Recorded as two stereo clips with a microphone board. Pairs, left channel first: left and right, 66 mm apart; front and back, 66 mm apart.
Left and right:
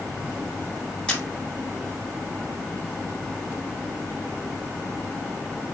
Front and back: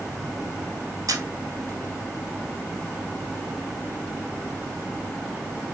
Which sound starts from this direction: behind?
A camera shutter, at 1.1 s.